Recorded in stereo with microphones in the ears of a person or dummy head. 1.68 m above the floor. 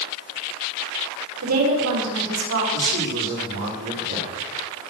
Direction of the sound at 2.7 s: 75° right (ahead or behind).